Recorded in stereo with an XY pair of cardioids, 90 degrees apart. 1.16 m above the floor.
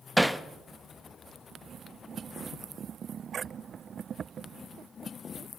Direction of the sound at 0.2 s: Straight ahead.